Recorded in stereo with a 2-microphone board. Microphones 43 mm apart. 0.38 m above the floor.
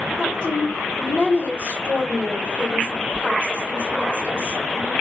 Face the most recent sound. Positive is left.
turn(degrees=25)  # may be behind; listen again after turning